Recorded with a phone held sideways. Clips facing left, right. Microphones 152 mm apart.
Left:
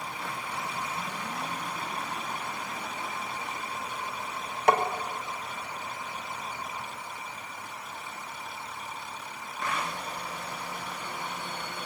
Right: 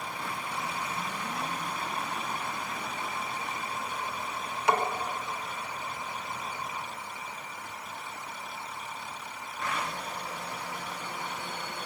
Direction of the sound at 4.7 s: 50° left (ahead or behind).